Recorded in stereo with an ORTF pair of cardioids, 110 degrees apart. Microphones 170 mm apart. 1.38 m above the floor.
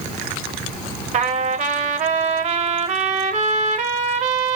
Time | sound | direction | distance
1.1 | a trumpet | 45° right | 0.8 m